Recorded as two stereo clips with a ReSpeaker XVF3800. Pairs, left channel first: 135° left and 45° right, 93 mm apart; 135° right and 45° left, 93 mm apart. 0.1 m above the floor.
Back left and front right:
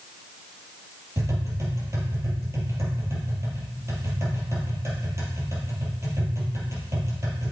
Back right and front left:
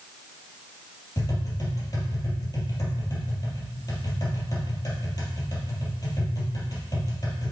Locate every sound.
1.2 s tapping: 95° right, 3 m